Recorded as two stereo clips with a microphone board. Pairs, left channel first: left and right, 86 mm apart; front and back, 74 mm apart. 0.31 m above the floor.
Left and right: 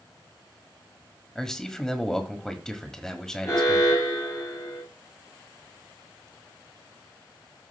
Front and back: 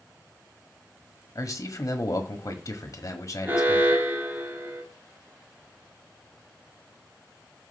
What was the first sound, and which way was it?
A man speaking, 10° left.